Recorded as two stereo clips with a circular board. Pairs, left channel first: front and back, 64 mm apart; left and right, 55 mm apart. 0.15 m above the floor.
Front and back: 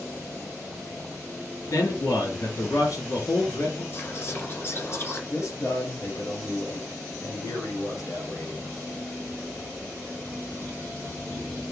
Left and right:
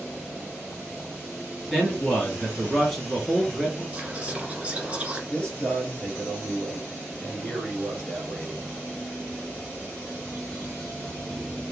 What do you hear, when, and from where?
1.7 s a man speaking: straight ahead, 2.5 m
3.9 s whispering: 30° right, 1.8 m
5.3 s a man speaking: 20° left, 2.5 m